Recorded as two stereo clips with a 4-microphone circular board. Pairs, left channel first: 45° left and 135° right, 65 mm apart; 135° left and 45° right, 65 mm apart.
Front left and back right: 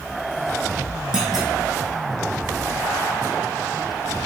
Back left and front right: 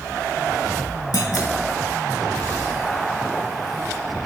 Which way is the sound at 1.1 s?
145° left.